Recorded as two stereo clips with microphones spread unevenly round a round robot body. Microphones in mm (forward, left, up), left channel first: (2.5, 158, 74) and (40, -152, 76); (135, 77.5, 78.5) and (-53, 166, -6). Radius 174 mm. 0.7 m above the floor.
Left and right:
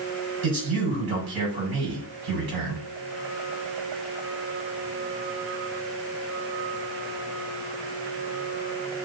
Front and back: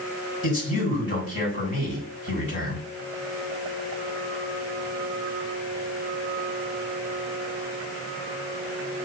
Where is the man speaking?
80° right, 6 m.